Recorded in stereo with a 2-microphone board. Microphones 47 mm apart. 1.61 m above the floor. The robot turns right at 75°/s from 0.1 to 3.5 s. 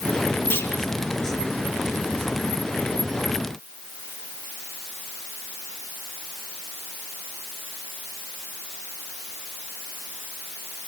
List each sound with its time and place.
0.5 s a clunk: 60° left (ahead or behind), 3 m; by 0.7 s 75° left (ahead or behind), 3 m